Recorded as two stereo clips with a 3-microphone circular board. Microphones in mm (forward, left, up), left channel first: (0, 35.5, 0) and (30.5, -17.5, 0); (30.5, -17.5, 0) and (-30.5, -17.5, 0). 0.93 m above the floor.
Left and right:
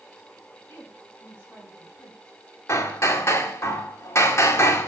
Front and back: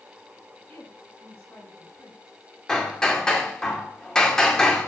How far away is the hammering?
About 2 m.